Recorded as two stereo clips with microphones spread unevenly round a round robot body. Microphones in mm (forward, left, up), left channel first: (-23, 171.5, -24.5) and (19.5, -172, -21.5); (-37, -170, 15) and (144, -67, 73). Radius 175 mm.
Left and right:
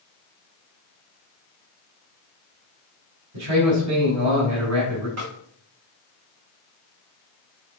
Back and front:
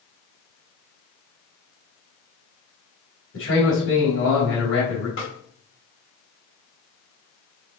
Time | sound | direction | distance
3.3 | a man speaking | 135° right | 4 m
5.2 | a snare drum | 130° right | 5 m